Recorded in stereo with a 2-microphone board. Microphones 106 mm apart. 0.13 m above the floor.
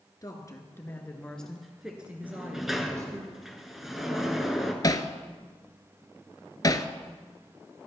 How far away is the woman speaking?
About 1.8 m.